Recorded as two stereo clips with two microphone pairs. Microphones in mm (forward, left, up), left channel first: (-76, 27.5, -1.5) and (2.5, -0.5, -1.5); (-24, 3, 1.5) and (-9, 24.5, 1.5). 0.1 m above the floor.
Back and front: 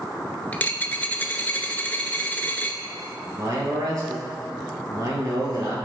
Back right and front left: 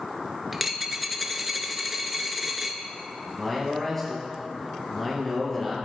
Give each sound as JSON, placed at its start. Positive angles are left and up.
{"t": 0.5, "sound": "a dropped coin", "azimuth_deg": 130, "distance_m": 0.5}
{"t": 3.3, "sound": "a man speaking", "azimuth_deg": -45, "distance_m": 1.8}